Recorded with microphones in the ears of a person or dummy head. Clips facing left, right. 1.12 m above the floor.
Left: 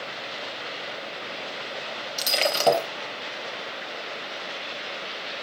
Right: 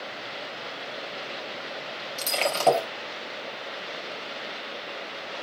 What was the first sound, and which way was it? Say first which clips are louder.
Breaking glass: left 1 dB; 15° left (ahead or behind).